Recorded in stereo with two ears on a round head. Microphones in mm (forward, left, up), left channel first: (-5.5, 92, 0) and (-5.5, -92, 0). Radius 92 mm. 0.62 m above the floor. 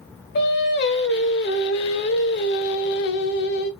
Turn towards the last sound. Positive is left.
turn(degrees=55)  # may be behind; listen again after turning